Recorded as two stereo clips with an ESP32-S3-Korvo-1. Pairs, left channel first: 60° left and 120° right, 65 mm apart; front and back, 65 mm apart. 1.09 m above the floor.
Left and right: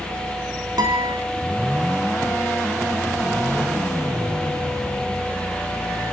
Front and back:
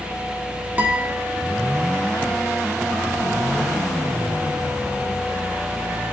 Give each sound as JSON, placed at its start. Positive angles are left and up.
{"t": 0.8, "sound": "a guitar", "azimuth_deg": -115, "distance_m": 3.5}